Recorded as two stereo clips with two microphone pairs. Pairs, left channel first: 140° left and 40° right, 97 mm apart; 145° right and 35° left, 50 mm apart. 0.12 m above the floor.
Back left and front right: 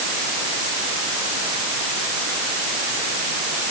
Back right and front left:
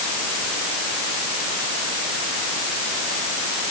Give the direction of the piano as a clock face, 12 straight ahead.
No piano in this recording.